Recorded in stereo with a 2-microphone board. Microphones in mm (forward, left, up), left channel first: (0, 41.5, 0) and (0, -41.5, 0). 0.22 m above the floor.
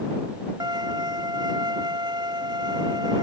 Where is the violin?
60° right (ahead or behind).